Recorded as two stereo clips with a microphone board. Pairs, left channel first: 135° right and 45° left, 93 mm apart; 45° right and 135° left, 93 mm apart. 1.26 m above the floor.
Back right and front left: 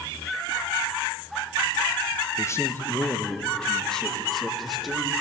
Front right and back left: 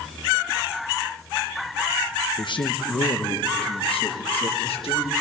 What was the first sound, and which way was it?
A man speaking, 80° right.